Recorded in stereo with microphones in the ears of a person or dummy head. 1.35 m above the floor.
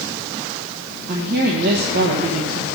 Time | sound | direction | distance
1.1 | a woman speaking | 55° right (ahead or behind) | 1.3 m